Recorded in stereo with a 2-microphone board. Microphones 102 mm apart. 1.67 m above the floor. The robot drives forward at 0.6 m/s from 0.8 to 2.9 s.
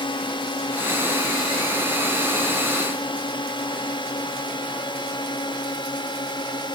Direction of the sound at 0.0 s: 55° left (ahead or behind).